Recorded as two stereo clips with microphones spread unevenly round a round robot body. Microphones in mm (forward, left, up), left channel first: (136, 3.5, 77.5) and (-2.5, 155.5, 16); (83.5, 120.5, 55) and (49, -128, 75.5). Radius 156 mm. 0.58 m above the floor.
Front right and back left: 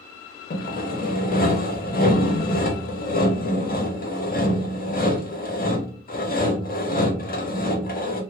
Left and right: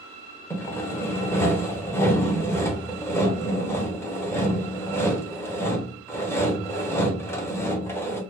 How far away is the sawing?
About 0.8 m.